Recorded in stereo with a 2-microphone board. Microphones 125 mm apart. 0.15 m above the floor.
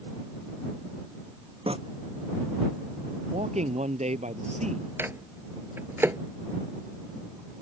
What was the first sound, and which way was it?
Tearing paper, 50° right (ahead or behind).